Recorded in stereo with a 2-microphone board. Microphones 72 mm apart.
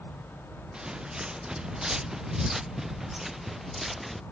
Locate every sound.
0.7 s footsteps: 10° right (ahead or behind); by 4.2 s centre (ahead or behind)